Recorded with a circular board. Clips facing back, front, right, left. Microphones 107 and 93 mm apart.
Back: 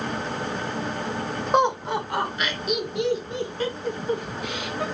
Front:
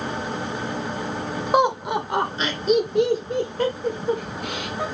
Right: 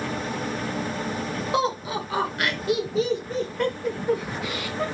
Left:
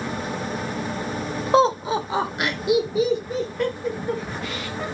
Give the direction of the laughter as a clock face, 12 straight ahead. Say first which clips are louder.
Front 2 dB, left 8 dB; 9 o'clock.